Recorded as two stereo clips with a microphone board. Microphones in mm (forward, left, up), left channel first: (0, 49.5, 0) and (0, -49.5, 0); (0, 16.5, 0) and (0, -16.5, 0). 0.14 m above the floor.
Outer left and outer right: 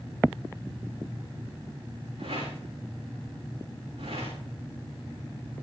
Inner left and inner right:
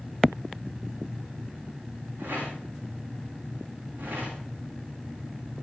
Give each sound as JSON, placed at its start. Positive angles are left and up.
{"t": 2.2, "sound": "a rattle", "side_deg": -80, "distance_m": 7.5}